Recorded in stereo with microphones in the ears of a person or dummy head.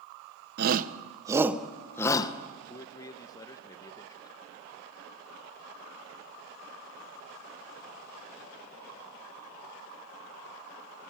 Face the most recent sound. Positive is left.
turn(degrees=20)  # may be behind; listen again after turning